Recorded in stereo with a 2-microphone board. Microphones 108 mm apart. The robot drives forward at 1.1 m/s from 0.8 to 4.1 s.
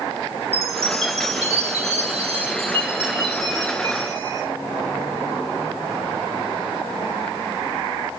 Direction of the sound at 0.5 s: 70° right (ahead or behind).